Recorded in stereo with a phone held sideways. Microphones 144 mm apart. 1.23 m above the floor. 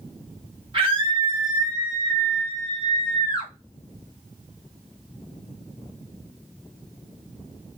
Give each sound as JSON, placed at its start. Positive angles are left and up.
{"t": 0.7, "sound": "a scream", "side_deg": -40, "distance_m": 1.6}